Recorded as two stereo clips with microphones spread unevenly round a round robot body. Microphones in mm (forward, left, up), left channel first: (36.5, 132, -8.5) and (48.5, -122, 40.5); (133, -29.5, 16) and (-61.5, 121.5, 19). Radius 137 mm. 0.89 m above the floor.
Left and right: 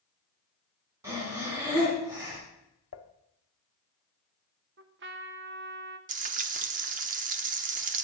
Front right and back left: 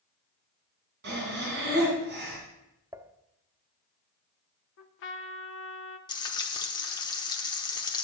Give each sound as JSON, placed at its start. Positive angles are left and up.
{"t": 1.0, "sound": "breathing", "azimuth_deg": -165, "distance_m": 3.0}
{"t": 2.9, "sound": "dishes clattering", "azimuth_deg": 60, "distance_m": 0.8}
{"t": 4.8, "sound": "a trumpet", "azimuth_deg": -45, "distance_m": 0.9}
{"t": 6.1, "sound": "frying", "azimuth_deg": -105, "distance_m": 0.5}